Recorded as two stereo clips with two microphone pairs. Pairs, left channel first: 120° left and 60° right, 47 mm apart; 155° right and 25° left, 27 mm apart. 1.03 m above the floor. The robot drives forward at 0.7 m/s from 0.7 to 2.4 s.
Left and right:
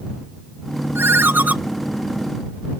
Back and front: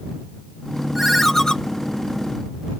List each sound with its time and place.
0.9 s a ringtone: 45° right, 0.6 m; by 1.6 s 100° right, 0.5 m